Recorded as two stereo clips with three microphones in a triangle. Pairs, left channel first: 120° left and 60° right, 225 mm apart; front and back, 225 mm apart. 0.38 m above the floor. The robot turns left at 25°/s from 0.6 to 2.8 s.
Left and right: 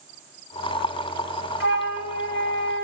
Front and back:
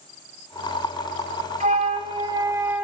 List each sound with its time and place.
1.6 s a flute: 130° left, 0.9 m; by 2.8 s 100° left, 0.9 m